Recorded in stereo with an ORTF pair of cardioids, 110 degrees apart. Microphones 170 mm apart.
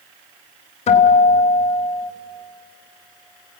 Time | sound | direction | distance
0.9 | a guitar | 40° left | 3.5 m